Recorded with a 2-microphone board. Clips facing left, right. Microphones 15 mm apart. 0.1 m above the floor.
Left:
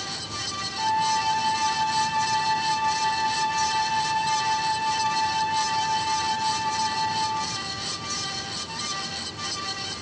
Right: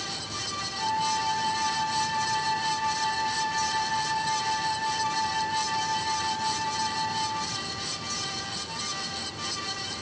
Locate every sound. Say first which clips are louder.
0.8 s a flute: left 4 dB; 70° left (ahead or behind), 7 m